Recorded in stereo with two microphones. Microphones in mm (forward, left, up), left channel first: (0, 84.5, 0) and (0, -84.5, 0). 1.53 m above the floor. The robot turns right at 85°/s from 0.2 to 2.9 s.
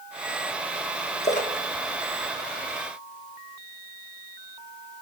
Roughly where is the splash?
Left.